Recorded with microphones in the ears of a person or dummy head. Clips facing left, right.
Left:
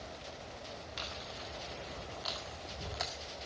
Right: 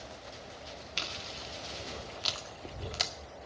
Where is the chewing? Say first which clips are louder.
Right 1 dB; 40° right (ahead or behind), 2 m.